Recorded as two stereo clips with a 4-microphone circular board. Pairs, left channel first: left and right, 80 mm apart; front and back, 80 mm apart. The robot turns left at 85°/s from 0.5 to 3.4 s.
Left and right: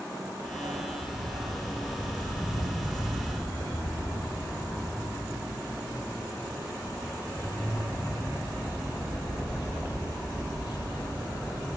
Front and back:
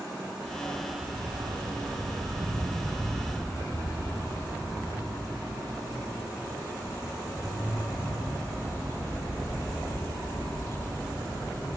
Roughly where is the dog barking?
Ahead right.